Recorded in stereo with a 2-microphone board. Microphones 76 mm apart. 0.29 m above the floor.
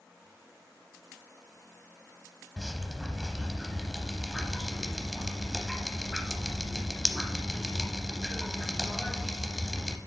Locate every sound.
2.6 s dripping: centre (ahead or behind), 0.7 m